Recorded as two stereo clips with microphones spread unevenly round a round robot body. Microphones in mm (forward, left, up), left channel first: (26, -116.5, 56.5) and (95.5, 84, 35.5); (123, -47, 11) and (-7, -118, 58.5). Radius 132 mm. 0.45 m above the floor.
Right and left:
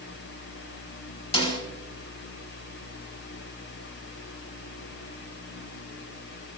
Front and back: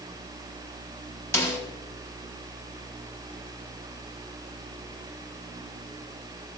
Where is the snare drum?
45° right, 4 m.